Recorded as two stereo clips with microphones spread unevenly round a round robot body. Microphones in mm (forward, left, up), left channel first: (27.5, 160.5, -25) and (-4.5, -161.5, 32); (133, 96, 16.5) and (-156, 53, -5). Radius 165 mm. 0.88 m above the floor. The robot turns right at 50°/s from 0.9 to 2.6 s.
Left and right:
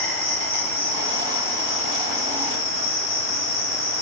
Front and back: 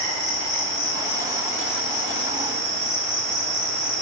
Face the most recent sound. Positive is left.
turn(degrees=95)